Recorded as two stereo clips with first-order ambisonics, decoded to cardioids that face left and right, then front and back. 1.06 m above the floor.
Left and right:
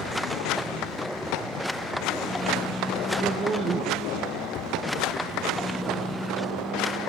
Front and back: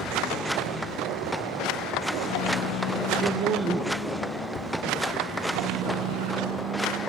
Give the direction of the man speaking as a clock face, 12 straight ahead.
5 o'clock.